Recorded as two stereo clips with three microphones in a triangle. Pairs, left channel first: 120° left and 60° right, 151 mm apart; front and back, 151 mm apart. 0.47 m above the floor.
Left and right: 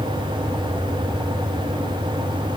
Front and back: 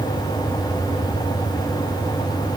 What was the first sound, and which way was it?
Only background noise.